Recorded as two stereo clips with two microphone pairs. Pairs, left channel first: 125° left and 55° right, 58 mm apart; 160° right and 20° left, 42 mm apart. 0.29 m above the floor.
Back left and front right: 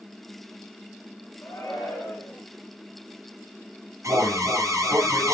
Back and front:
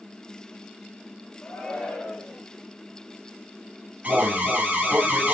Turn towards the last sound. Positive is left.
turn(degrees=-25)